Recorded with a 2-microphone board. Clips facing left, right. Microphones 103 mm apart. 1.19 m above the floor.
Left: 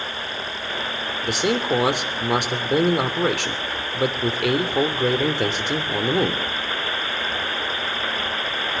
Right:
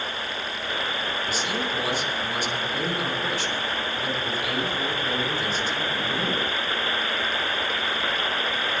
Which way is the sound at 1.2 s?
75° left (ahead or behind).